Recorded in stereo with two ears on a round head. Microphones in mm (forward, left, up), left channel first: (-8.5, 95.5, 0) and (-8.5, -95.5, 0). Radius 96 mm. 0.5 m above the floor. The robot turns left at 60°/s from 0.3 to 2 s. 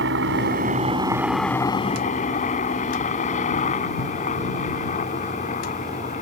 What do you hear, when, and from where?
0.0 s a helicopter: 60° right (ahead or behind); by 6.2 s 35° left (ahead or behind)